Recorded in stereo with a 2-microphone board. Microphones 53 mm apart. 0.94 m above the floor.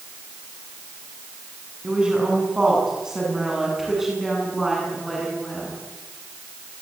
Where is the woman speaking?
15° right (ahead or behind), 8.5 m; by 5.8 s centre (ahead or behind), 10 m.